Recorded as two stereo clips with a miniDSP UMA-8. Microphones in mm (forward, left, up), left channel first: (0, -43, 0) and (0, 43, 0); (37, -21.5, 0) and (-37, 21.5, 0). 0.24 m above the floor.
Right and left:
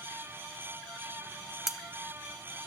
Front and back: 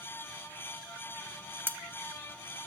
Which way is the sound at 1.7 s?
170° left.